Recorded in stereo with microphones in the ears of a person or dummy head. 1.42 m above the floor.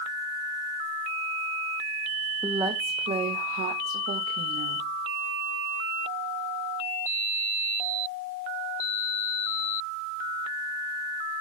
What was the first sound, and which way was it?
A woman speaking, 10° right (ahead or behind).